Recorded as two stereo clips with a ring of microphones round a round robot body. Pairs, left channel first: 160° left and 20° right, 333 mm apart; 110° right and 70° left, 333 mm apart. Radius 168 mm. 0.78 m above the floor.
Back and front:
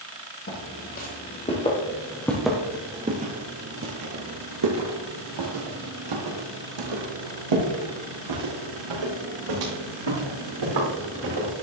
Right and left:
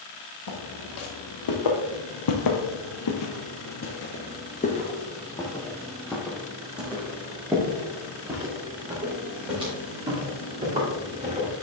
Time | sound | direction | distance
0.5 | footsteps | 145° right | 2.0 m